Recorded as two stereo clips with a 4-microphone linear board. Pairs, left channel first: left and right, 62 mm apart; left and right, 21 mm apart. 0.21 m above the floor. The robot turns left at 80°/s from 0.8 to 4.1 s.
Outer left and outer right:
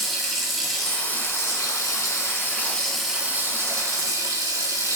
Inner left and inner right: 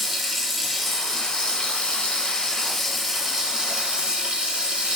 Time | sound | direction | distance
0.0 | running water | 175° left | 2 m